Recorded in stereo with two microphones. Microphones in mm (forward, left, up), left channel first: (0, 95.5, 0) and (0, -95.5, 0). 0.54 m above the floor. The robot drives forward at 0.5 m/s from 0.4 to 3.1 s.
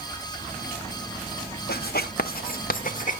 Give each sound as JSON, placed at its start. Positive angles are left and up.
{"t": 1.7, "sound": "writing", "side_deg": 55, "distance_m": 1.0}